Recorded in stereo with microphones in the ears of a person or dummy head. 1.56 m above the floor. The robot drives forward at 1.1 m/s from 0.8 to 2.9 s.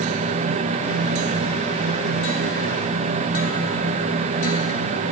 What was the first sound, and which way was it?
Only background noise.